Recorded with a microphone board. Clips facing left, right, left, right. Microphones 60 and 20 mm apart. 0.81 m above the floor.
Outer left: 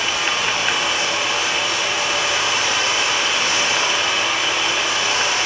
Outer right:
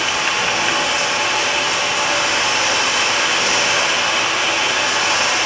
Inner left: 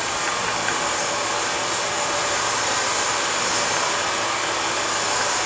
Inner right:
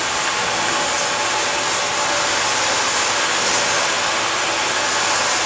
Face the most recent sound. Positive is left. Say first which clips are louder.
# outer right 2 dB, inner right 4 dB
turn(degrees=-65)  # may be behind; listen again after turning